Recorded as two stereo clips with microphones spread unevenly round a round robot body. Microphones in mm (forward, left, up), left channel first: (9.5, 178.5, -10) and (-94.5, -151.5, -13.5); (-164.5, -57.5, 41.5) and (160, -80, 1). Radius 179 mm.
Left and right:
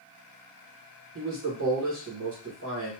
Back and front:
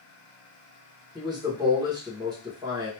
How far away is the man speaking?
About 1.7 m.